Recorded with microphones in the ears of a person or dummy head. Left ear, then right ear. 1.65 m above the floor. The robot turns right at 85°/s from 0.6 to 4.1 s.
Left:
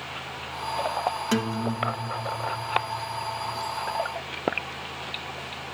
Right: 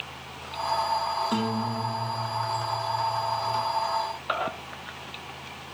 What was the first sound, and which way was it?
A guitar, 115° left.